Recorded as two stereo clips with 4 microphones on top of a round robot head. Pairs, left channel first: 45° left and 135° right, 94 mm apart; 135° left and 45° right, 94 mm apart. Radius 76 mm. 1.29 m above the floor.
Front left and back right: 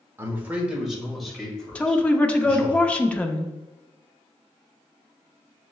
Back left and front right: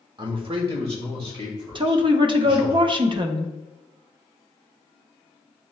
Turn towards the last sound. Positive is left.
turn(degrees=-30)